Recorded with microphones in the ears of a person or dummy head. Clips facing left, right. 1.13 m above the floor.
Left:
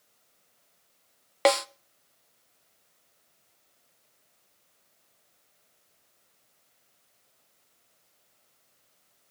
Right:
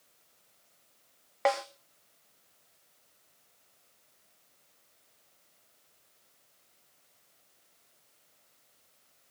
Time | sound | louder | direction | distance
1.4 | a snare drum | left 6 dB | 50° left (ahead or behind) | 0.8 m